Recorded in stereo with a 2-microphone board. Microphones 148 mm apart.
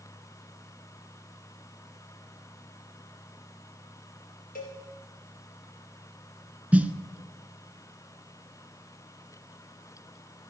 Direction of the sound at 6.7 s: 10° right (ahead or behind).